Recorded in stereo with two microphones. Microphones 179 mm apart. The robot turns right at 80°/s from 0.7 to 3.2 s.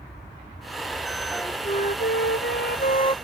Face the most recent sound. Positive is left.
turn(degrees=155)